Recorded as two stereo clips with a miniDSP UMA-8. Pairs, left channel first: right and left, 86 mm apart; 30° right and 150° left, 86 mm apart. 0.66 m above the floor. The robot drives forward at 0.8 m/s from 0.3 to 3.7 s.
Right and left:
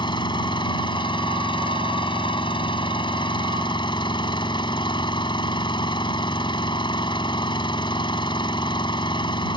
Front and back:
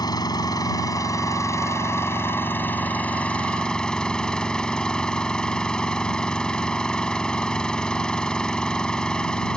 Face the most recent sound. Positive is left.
turn(degrees=-110)